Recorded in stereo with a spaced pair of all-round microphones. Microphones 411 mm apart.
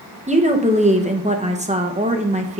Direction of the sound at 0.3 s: 15° right (ahead or behind).